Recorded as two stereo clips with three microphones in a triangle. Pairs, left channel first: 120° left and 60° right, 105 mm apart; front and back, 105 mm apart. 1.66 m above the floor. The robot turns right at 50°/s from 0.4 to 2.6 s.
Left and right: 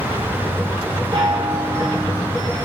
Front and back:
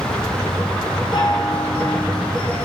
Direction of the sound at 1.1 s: 30° right.